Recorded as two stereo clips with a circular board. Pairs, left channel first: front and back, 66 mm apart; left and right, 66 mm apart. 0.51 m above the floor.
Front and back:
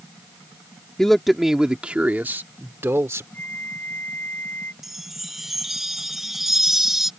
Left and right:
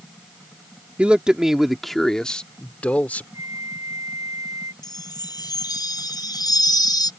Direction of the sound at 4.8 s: 95° left.